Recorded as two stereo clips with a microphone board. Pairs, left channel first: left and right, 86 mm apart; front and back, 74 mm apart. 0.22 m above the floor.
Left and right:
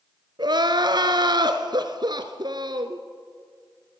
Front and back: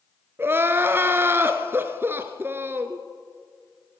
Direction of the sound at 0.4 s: 120° right.